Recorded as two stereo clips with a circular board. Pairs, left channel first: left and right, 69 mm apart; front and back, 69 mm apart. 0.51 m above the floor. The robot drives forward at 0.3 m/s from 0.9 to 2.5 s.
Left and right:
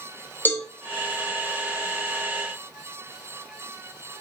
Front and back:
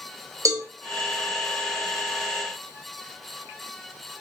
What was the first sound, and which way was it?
A cowbell, 145° left.